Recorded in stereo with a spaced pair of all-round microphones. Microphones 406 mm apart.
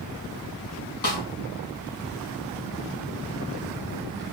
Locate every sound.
1.0 s a snare drum: 70° left (ahead or behind), 3 m